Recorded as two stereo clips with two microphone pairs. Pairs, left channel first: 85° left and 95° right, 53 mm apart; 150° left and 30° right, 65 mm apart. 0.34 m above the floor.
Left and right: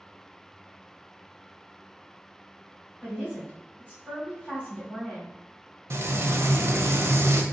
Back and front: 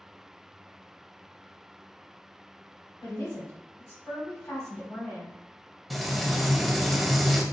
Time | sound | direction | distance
3.0 | a woman speaking | 145° left | 1.9 m
5.9 | frying | 120° right | 0.5 m